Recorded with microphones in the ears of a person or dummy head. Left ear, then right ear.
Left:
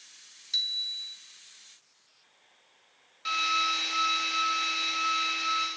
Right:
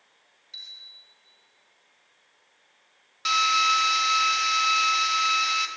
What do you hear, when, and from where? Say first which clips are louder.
0.5 s a bicycle bell: left 11 dB; 55° left (ahead or behind), 3.5 m
3.2 s a drill: right 6 dB; 30° right (ahead or behind), 3.5 m